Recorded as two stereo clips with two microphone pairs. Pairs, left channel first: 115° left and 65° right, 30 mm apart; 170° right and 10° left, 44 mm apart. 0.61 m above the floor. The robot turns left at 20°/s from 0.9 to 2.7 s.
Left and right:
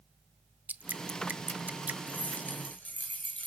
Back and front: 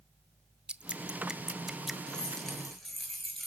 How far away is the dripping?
About 0.6 m.